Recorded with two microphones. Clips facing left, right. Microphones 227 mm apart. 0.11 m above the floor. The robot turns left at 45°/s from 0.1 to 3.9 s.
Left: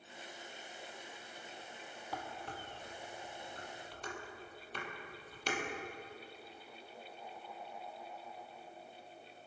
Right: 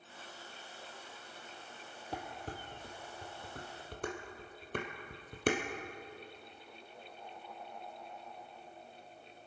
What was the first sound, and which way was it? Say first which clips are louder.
Dishes clattering: right 3 dB; 30° right (ahead or behind).